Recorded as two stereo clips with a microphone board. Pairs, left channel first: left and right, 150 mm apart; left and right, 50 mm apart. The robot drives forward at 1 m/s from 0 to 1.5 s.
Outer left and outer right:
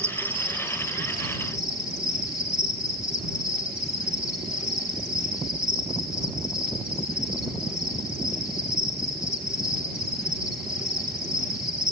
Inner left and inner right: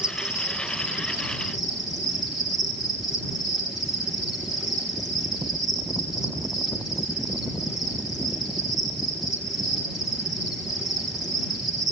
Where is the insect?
15° right (ahead or behind), 0.9 m; by 11.9 s 5° right (ahead or behind), 2.5 m.